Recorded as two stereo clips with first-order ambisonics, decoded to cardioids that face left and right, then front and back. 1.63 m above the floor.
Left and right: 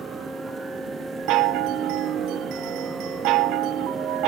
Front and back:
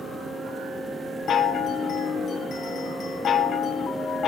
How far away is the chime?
About 0.8 m.